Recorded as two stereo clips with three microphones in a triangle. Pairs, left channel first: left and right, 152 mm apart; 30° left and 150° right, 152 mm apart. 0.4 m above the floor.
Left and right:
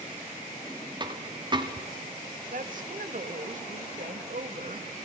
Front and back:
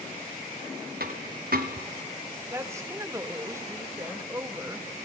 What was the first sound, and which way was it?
A dropped coin, 150° right.